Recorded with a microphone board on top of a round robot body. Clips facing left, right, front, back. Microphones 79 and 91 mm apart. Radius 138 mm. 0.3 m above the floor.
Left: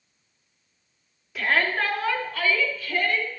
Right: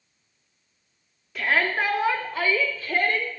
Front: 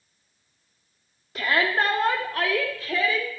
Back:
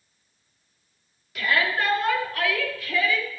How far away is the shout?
About 1.6 m.